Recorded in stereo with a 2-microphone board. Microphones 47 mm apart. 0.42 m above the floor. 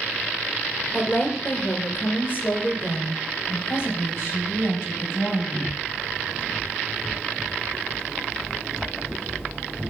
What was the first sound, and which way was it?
A woman speaking, 35° left (ahead or behind).